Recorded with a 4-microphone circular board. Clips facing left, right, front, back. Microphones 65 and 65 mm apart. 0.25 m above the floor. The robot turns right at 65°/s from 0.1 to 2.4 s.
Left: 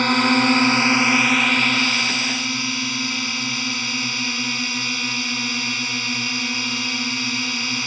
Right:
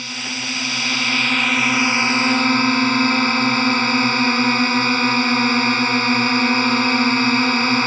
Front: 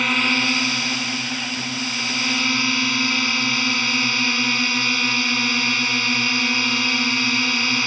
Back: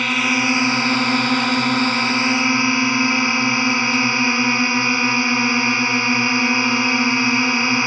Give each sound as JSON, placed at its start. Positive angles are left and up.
{"t": 0.0, "sound": "a drone", "azimuth_deg": 90}